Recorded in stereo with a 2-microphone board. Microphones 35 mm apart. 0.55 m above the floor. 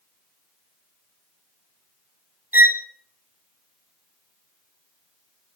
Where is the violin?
70° right (ahead or behind), 0.7 m.